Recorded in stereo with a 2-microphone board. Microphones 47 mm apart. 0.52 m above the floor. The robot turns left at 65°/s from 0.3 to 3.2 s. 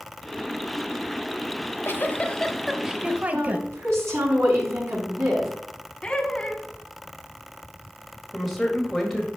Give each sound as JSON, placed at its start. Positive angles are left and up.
{"t": 1.6, "sound": "a giggle", "azimuth_deg": 70, "distance_m": 0.8}
{"t": 3.3, "sound": "a woman speaking", "side_deg": -70, "distance_m": 4.5}
{"t": 6.0, "sound": "laughter", "side_deg": 15, "distance_m": 1.3}
{"t": 8.3, "sound": "a woman speaking", "side_deg": 0, "distance_m": 2.0}